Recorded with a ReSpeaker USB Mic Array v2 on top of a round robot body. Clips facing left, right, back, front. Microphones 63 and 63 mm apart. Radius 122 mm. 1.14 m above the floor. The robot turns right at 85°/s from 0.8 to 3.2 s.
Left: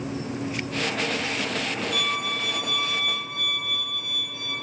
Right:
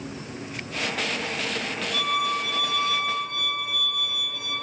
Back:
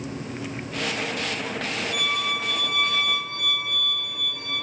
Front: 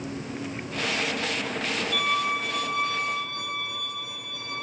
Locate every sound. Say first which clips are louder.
1.9 s a violin: right 2 dB, front 3 dB; 40° left, 0.9 m; by 4.6 s 145° left, 0.9 m